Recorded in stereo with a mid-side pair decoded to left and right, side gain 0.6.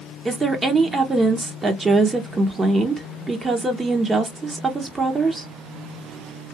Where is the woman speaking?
20° right, 0.7 m.